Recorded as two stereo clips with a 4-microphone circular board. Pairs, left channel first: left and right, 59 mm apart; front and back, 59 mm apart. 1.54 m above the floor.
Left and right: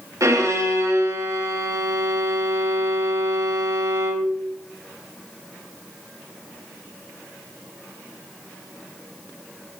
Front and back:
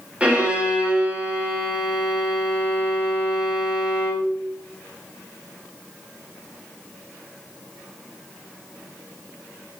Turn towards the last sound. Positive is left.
turn(degrees=-110)